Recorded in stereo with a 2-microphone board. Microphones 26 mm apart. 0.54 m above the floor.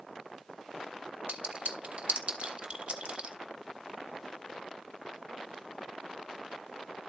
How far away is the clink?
About 1.2 m.